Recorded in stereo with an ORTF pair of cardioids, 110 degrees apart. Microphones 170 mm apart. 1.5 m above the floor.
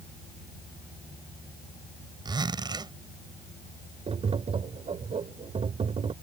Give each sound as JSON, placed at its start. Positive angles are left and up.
{"t": 2.2, "sound": "a zipper", "azimuth_deg": -25}
{"t": 4.1, "sound": "tapping", "azimuth_deg": -35}